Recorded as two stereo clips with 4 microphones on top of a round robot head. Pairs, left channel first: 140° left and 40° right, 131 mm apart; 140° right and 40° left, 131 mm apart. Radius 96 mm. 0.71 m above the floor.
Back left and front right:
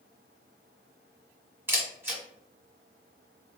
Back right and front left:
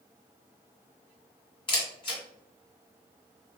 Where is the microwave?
No microwave in this recording.